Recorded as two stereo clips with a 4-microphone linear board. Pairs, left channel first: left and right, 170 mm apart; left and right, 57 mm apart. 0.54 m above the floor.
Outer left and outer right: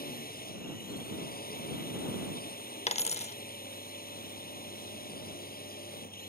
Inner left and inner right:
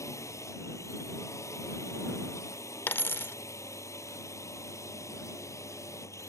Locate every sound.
0.0 s a drone: 60° left (ahead or behind)
2.9 s a dropped coin: 40° left (ahead or behind)